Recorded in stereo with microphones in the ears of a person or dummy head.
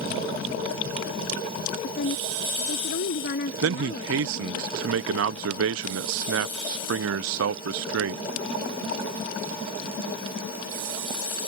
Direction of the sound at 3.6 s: 75° right (ahead or behind).